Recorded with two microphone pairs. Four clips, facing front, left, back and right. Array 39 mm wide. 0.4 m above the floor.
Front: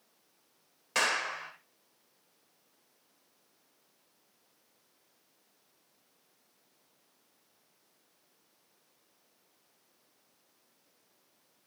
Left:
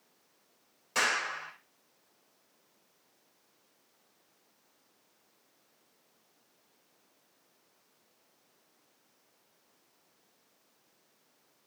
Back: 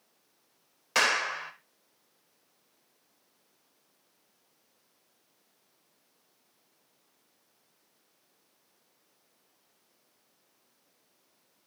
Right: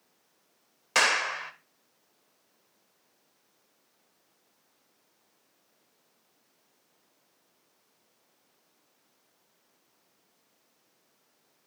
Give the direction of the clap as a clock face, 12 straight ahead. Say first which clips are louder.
Right 5 dB, back 4 dB; 4 o'clock.